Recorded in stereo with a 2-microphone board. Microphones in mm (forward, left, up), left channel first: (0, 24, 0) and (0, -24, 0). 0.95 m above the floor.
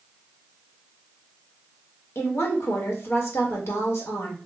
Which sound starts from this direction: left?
A woman speaking, at 2.1 s.